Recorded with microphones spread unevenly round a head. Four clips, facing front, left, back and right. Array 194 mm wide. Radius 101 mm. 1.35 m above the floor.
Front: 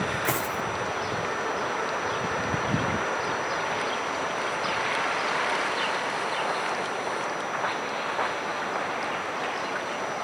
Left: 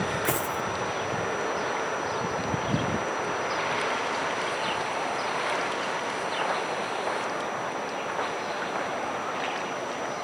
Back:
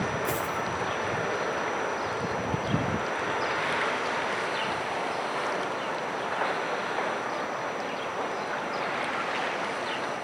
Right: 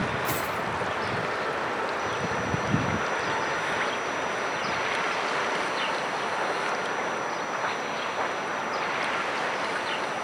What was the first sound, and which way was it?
A dropped coin, 70° left.